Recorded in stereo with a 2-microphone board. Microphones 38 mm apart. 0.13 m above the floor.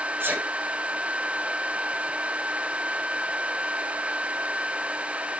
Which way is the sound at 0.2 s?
70° right (ahead or behind).